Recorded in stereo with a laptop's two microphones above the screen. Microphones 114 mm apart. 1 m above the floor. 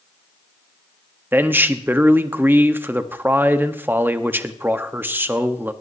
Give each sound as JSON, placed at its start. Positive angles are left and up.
{"t": 1.3, "sound": "a man speaking", "side_deg": -15, "distance_m": 1.1}